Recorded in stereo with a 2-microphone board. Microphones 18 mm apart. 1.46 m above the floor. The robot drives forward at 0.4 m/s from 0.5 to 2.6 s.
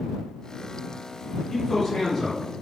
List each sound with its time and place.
1.5 s a man speaking: 25° left (ahead or behind), 1.3 m; by 2.4 s 20° left (ahead or behind), 1.7 m